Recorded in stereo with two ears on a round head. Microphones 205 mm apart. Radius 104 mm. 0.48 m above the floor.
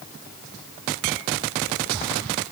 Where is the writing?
I don't hear writing.